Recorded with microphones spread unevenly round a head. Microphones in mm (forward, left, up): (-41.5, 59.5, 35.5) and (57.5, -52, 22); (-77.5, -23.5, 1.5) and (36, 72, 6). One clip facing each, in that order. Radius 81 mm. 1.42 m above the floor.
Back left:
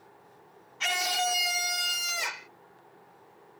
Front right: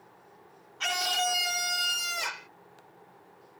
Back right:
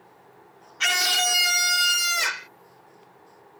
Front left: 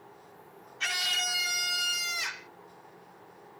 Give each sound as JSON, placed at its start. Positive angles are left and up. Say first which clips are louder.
{"t": 0.8, "sound": "a scream", "louder": "even, back right 11 dB", "azimuth_deg": -145}